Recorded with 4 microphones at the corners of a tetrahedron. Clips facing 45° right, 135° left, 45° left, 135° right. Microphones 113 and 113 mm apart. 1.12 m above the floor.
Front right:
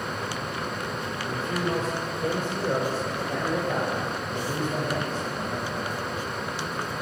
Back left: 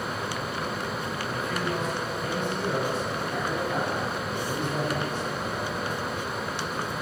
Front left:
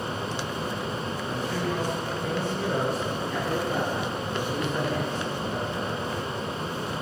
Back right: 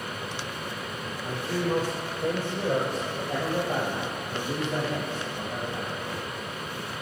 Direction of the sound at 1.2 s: 100° right.